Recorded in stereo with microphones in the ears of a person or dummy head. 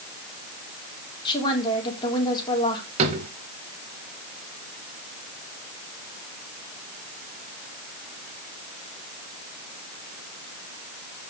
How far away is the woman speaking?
About 4 m.